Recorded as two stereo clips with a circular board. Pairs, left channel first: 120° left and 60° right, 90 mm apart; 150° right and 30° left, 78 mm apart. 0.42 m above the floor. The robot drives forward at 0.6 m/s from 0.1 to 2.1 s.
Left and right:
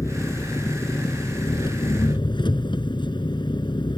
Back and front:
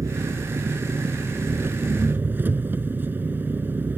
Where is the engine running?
70° left; by 4.0 s 95° left.